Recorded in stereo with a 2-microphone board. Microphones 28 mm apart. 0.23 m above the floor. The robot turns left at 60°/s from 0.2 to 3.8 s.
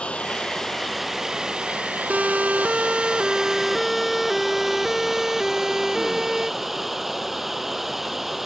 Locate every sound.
0.0 s running water: 45° left; by 8.5 s 170° right
2.1 s a siren: 65° right (ahead or behind); by 6.5 s 25° right (ahead or behind)